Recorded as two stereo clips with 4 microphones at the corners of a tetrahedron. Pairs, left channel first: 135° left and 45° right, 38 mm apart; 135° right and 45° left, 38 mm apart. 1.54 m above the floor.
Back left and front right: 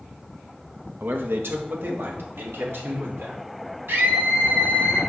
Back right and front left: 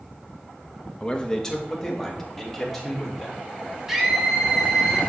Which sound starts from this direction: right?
A man speaking, at 1.0 s.